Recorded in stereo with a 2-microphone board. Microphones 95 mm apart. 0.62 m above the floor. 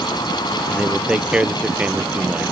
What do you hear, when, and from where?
0.7 s a man speaking: 10° right (ahead or behind)